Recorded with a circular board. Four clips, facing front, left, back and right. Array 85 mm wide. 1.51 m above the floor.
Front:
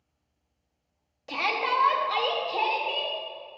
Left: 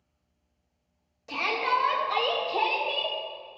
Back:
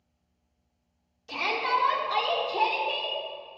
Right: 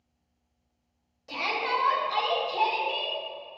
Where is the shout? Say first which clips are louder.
Left 2 dB, even; 10° left, 3 m; by 3.2 s 45° left, 2.5 m.